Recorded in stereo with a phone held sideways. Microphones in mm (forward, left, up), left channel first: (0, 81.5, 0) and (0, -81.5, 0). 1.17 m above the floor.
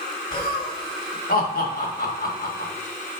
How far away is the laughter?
About 2 m.